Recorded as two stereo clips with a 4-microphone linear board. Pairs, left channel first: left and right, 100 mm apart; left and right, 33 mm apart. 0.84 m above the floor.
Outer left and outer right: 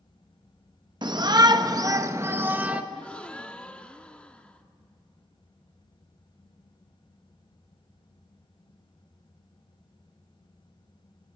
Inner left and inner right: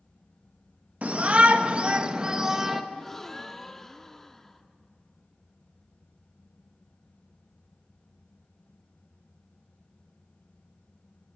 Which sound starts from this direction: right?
A shout, at 1.0 s.